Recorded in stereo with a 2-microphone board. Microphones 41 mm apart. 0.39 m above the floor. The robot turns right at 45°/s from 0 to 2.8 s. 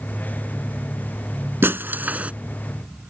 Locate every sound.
1.6 s breaking glass: 65° right (ahead or behind); by 2.3 s 35° right (ahead or behind)